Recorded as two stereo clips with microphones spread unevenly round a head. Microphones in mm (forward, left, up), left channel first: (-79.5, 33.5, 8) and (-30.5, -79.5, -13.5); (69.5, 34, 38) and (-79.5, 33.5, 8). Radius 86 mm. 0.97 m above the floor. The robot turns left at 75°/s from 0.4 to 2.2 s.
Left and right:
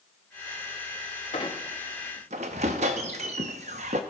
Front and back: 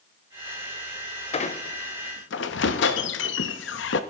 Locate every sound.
1.3 s a squeak: 55° left, 0.7 m; by 4.0 s 10° right, 0.7 m